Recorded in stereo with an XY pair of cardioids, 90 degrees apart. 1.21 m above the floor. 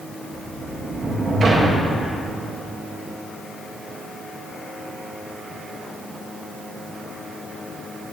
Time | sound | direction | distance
0.3 | a sliding door | 50° right | 1.4 m